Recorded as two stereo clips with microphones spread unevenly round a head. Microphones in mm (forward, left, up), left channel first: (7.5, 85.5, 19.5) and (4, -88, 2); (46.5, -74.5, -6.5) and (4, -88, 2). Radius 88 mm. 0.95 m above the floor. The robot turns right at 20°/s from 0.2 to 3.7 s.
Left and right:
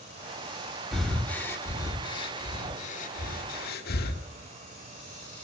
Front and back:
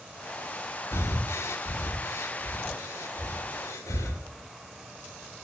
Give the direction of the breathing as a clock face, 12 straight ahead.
12 o'clock.